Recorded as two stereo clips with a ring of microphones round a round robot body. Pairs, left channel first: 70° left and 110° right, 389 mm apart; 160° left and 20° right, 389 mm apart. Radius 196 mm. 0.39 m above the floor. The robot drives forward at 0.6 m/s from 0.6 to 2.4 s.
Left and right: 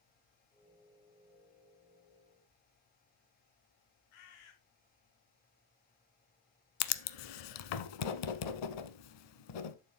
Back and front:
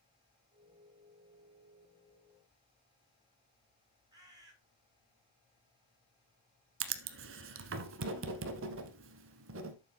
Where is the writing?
40° left, 0.9 m.